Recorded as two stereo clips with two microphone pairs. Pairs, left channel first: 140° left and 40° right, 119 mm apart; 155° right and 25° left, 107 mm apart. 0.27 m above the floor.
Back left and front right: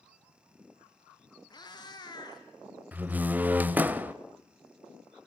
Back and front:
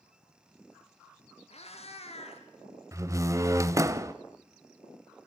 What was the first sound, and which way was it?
A cat meowing, 165° right.